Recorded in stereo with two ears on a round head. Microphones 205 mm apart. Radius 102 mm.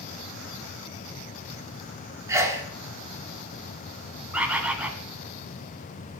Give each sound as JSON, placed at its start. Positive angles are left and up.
{"t": 2.3, "sound": "a sneeze", "side_deg": -10, "distance_m": 0.8}
{"t": 4.3, "sound": "a bird", "side_deg": -5, "distance_m": 0.7}